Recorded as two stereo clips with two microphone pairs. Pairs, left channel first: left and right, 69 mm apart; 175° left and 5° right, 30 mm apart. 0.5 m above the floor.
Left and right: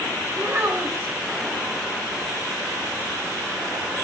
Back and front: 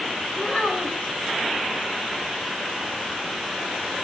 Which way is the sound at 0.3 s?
140° right.